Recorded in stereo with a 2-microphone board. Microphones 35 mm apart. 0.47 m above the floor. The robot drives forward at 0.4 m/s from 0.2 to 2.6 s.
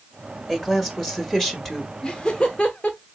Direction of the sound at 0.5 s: 5° left (ahead or behind).